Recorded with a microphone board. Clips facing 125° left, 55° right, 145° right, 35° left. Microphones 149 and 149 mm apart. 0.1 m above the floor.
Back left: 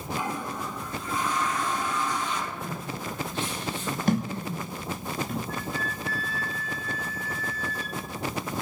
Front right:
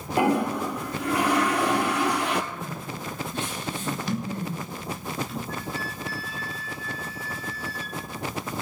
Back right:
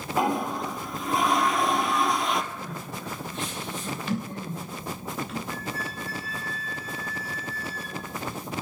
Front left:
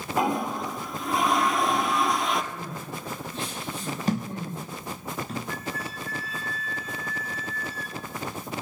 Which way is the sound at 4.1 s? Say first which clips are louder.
Back left 3 dB, front left 3 dB; 85° left.